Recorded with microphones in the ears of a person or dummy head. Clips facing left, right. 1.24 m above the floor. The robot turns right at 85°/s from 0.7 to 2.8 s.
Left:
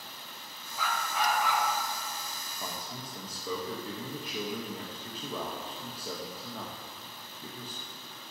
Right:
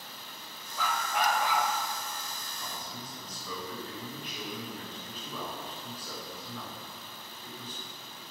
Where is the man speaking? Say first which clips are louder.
Left 3 dB; 40° left (ahead or behind), 1.2 m; by 7.8 s 25° left (ahead or behind), 1.2 m.